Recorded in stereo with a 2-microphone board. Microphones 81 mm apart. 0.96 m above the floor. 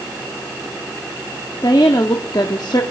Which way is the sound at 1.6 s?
65° left (ahead or behind).